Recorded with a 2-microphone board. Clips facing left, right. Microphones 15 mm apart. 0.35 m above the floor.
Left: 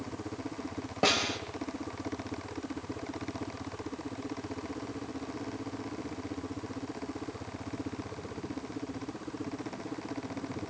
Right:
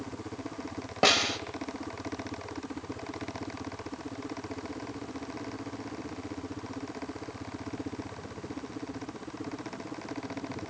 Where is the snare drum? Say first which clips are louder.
Right 4 dB; 30° right (ahead or behind), 2 m.